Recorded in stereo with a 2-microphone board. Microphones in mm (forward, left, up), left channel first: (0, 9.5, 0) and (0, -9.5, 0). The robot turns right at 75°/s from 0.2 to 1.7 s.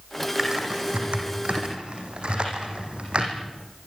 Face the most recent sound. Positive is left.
turn(degrees=-55)  # may be behind; listen again after turning